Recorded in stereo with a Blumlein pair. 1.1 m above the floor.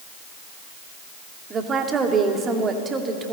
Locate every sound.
1.5 s a woman speaking: 20° right, 2.5 m